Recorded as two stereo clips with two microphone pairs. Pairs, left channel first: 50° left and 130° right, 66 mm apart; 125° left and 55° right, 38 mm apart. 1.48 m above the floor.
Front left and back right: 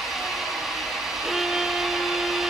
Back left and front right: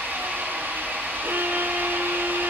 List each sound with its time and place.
0.0 s an engine running: 40° right, 4 m
1.2 s a violin: 40° right, 0.9 m